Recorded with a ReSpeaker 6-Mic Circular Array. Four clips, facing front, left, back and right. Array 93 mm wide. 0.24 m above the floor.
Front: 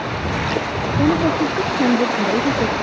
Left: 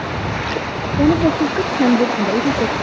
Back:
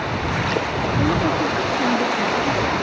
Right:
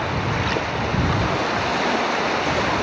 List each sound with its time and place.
1.0 s a woman speaking: 80° left; by 2.8 s 60° left